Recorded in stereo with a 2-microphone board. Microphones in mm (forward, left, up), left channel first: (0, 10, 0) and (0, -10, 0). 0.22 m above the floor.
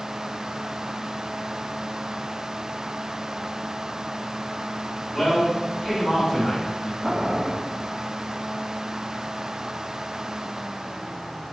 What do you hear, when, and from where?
5.1 s a man speaking: 10° left (ahead or behind), 1.2 m; by 6.9 s centre (ahead or behind), 1.1 m
7.0 s boiling: 65° right (ahead or behind), 1.8 m